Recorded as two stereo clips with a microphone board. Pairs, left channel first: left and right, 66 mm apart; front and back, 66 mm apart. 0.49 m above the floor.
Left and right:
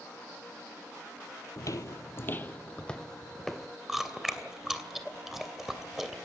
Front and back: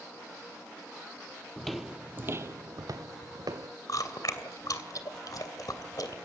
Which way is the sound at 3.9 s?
5° right.